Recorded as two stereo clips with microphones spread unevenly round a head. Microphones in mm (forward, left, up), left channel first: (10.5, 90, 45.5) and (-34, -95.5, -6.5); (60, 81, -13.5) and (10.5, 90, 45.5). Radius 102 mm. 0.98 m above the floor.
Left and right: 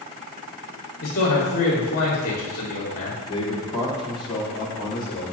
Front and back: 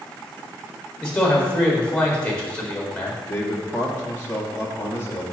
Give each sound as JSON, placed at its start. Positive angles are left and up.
{"t": 1.0, "sound": "a man speaking", "azimuth_deg": 30, "distance_m": 1.7}
{"t": 3.3, "sound": "a man speaking", "azimuth_deg": 5, "distance_m": 1.8}